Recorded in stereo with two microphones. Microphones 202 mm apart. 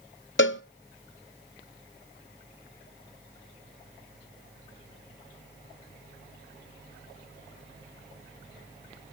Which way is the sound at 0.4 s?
70° left (ahead or behind).